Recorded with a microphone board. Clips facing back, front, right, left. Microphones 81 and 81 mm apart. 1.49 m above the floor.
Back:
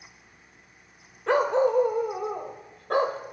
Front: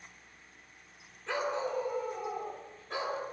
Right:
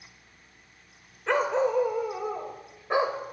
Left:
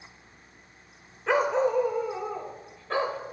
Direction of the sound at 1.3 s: 175° left.